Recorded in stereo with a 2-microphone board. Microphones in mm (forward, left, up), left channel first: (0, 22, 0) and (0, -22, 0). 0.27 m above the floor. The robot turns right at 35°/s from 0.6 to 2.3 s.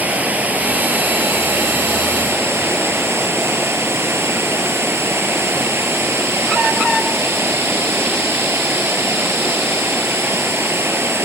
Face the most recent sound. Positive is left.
turn(degrees=-80)